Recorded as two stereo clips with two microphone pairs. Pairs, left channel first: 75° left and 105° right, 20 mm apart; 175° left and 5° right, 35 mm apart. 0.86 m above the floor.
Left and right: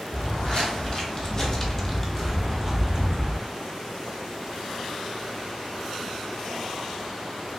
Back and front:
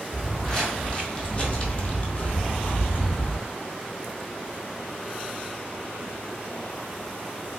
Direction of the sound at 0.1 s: 95° left.